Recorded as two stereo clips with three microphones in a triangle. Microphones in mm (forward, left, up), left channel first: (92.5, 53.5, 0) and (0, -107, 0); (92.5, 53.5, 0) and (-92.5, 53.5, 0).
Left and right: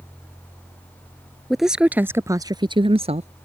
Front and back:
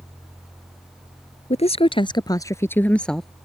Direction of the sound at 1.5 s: 30° right.